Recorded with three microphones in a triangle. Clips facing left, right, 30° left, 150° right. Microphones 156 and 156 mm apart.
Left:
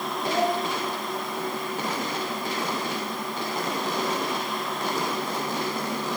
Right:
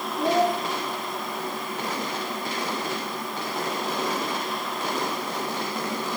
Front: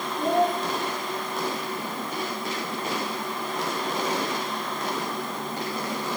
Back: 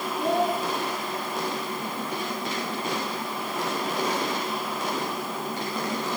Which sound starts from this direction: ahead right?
A child speaking, at 0.2 s.